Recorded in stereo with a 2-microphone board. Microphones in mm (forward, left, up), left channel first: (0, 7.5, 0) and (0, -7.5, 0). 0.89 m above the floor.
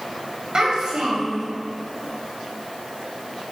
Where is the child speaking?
65° right (ahead or behind), 2.5 m.